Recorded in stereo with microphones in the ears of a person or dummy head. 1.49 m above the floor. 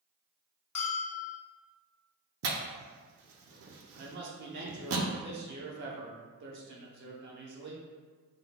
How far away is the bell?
About 0.9 m.